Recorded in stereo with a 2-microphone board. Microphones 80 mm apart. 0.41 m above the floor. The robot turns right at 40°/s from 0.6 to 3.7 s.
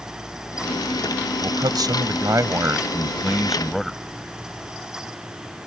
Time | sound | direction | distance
1.4 | a man speaking | 85° right | ?